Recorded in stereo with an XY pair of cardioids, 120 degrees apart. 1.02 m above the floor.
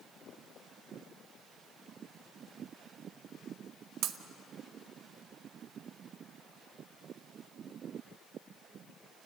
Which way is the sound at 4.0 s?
70° right.